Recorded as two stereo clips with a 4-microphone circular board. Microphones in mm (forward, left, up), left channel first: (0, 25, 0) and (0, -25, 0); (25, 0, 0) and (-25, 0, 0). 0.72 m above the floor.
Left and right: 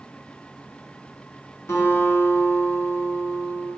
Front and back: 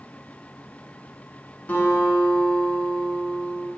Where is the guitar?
60° left, 3.5 m.